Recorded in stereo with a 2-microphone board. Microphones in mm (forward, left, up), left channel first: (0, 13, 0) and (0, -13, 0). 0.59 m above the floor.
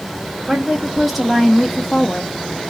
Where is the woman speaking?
15° right (ahead or behind), 1.2 m; by 2.3 s 20° left (ahead or behind), 0.7 m.